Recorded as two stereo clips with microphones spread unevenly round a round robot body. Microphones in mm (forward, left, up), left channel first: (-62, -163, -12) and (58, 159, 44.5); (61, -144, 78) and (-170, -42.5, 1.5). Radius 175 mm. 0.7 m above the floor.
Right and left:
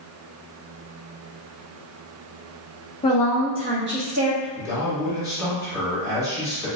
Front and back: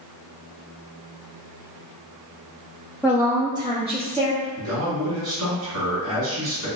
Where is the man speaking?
155° left, 1.7 m.